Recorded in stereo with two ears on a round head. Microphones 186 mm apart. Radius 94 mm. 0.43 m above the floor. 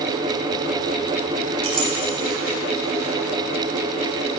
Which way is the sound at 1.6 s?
25° right (ahead or behind).